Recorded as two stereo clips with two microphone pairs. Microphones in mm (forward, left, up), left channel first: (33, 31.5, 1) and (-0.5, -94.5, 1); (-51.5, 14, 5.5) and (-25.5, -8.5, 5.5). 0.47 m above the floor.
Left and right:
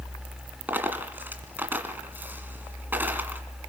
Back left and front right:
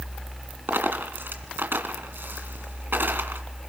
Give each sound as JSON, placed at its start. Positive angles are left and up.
{"t": 0.7, "sound": "a dropped coin", "azimuth_deg": -30, "distance_m": 1.9}